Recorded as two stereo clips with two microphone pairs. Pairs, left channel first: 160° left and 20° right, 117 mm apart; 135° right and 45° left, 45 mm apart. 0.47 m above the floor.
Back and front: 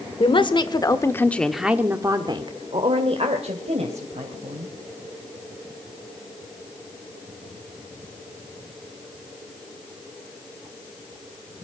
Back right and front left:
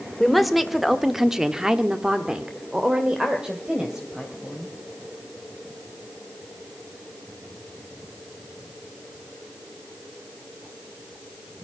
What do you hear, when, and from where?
0.2 s a woman speaking: 135° left, 1.7 m; by 4.8 s 25° right, 3.5 m